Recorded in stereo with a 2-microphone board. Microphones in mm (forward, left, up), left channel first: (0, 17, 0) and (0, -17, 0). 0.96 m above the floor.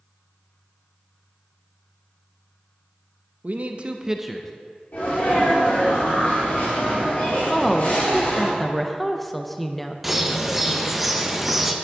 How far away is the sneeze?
About 2.5 m.